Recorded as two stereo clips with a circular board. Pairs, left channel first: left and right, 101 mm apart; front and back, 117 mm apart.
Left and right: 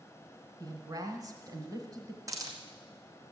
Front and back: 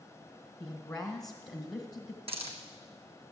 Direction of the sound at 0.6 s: 80° right.